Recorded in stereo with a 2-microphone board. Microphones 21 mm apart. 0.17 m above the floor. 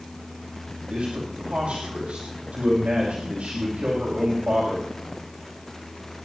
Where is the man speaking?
70° right (ahead or behind), 6.5 m.